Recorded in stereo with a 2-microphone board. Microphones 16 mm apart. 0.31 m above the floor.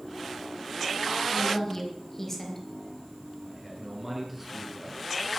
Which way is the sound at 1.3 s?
10° left (ahead or behind).